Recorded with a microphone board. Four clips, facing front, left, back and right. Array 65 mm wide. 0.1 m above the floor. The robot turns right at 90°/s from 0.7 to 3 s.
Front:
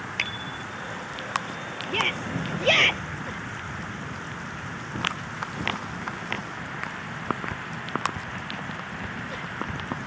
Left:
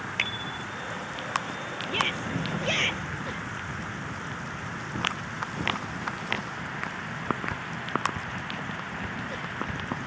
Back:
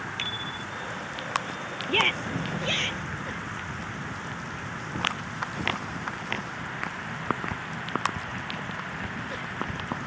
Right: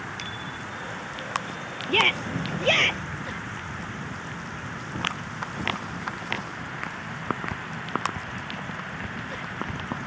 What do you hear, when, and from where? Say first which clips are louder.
0.2 s a bicycle bell: left 2 dB, front 2 dB; 50° left
1.9 s a shout: right 6 dB, back 2 dB; 115° right; by 3.0 s 15° right